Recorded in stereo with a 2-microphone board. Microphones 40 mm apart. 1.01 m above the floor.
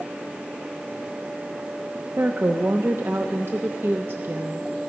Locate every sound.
2.2 s a woman speaking: 60° right (ahead or behind), 0.5 m